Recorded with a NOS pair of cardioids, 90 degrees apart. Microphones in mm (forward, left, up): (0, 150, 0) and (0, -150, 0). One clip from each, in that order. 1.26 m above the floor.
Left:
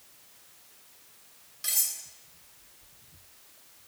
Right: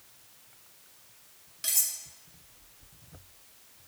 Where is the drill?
I don't hear a drill.